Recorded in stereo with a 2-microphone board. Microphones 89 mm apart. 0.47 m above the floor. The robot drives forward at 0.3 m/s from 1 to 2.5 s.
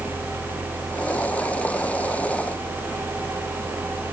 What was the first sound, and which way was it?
Only background noise.